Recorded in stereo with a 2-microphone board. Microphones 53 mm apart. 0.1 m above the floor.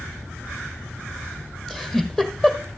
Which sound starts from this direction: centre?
A giggle, at 1.7 s.